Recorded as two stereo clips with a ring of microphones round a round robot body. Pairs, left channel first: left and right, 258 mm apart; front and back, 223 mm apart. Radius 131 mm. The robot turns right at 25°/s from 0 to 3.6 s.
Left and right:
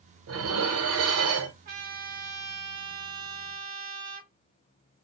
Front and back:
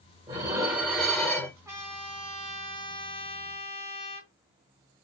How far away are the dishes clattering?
About 0.7 m.